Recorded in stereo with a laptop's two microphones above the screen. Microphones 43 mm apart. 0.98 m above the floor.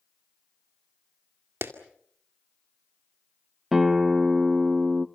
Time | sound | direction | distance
1.6 | a clap | 75° right (ahead or behind) | 2 m
3.7 | a guitar | 5° right (ahead or behind) | 0.9 m